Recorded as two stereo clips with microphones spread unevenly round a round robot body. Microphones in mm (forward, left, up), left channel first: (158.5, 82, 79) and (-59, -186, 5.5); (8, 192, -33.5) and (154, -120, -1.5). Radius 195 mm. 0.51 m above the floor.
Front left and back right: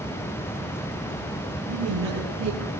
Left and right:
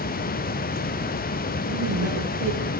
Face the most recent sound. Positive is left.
turn(degrees=-85)